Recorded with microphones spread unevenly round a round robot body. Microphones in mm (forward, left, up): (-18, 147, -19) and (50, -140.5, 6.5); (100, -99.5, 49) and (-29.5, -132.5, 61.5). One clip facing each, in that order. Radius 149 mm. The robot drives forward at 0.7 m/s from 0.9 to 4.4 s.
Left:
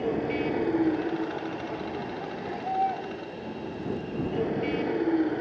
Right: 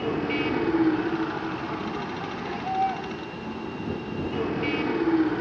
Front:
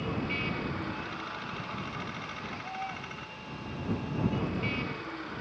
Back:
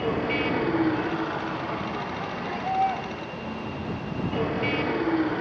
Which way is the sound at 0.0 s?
140° right.